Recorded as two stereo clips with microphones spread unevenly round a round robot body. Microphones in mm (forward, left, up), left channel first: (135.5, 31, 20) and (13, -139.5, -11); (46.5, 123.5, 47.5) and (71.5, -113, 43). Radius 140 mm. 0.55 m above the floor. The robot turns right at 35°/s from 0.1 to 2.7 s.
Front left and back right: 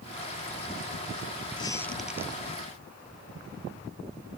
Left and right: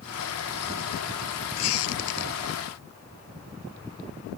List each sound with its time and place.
1.6 s a squeak: 130° left; by 2.3 s 155° left